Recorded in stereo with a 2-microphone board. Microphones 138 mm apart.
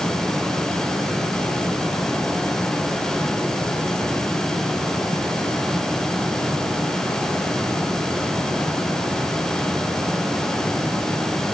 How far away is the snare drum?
No snare drum in this recording.